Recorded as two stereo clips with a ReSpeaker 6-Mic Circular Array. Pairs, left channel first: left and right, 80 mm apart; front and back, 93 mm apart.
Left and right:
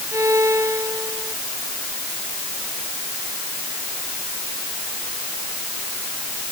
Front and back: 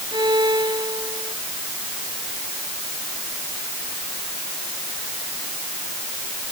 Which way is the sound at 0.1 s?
145° right.